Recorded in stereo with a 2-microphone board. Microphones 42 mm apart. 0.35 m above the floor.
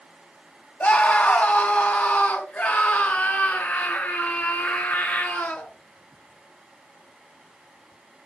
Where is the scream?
45° left (ahead or behind), 2.5 m; by 5.7 s 55° left (ahead or behind), 6 m.